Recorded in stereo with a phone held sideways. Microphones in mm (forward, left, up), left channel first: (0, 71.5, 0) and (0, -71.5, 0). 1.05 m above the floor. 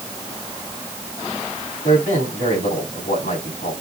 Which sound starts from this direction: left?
A man speaking, at 1.8 s.